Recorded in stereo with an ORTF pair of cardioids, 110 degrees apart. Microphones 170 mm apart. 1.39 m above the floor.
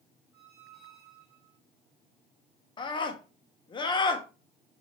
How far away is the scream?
About 1.1 m.